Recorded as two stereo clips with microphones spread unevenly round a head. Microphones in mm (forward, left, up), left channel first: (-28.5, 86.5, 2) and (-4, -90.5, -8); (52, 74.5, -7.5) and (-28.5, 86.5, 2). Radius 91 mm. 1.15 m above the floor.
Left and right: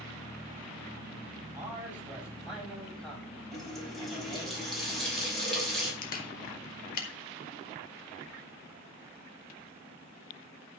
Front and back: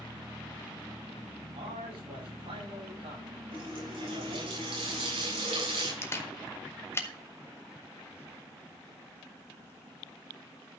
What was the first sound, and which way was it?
A man speaking, 160° right.